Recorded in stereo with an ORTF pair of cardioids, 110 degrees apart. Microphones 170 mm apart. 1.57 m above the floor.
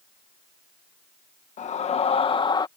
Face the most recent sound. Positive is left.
turn(degrees=25)